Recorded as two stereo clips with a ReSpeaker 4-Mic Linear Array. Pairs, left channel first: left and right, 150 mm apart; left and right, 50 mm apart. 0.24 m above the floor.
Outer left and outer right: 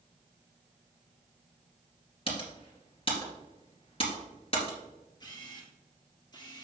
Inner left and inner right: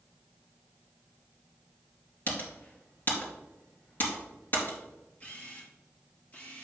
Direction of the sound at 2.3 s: 40° left (ahead or behind).